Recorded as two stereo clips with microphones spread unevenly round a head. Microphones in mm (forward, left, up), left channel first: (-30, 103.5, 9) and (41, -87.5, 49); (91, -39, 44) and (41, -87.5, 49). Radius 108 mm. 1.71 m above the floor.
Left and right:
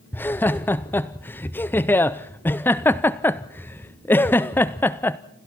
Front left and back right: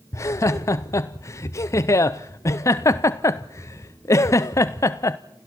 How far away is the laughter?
About 0.5 m.